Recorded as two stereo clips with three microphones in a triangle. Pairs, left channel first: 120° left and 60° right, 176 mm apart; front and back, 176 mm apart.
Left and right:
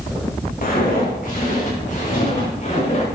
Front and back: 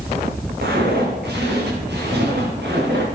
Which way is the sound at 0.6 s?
160° left.